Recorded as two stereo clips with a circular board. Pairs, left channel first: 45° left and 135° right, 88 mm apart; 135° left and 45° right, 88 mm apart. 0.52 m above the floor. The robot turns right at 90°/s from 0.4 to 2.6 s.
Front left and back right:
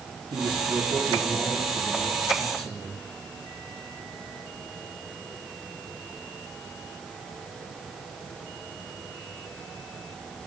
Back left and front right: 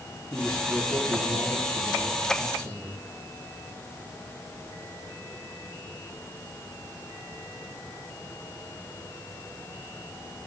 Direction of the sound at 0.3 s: 155° right.